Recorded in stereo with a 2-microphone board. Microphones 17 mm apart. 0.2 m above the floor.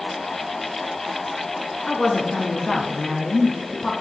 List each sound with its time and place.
1.9 s a woman speaking: 60° left (ahead or behind), 1.9 m; by 3.9 s 20° left (ahead or behind), 1.4 m